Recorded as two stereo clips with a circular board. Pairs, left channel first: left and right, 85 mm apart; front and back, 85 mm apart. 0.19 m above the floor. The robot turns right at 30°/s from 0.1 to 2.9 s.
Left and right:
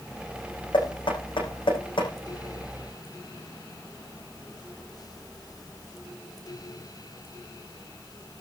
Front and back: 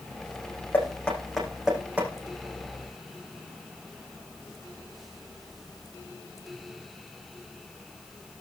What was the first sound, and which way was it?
Knocking, 70° left.